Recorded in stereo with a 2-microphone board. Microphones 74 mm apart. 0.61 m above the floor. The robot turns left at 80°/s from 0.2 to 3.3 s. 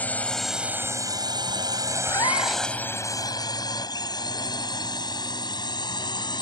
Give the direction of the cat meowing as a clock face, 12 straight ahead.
8 o'clock.